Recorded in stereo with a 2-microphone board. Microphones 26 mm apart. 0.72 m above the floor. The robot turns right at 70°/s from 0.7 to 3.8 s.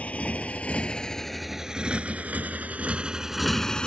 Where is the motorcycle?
60° left (ahead or behind); by 3.9 s 35° left (ahead or behind).